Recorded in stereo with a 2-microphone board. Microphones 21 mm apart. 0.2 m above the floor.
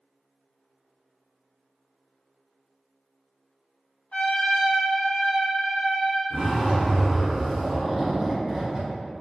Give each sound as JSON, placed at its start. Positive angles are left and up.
{"t": 4.1, "sound": "a trumpet", "side_deg": 80, "distance_m": 0.9}
{"t": 6.3, "sound": "a zipper", "side_deg": -30, "distance_m": 1.4}